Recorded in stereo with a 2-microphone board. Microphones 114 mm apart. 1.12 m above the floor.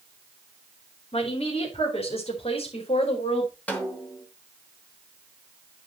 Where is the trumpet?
I don't hear a trumpet.